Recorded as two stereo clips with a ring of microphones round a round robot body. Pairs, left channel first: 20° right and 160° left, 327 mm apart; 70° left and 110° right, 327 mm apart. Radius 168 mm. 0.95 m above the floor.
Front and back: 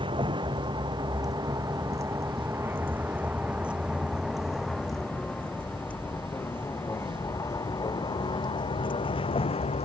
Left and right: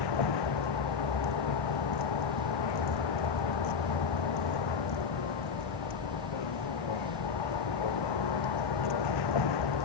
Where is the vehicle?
80° left; by 9.8 s 50° left.